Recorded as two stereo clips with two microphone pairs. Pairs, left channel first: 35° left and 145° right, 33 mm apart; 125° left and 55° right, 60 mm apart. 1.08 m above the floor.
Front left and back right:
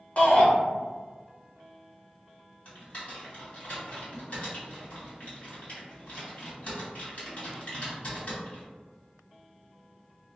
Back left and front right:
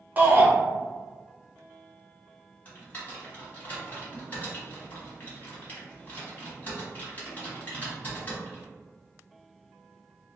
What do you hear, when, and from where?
0.2 s a shout: 5° left, 0.9 m
2.6 s typing on a keyboard: 70° left, 1.4 m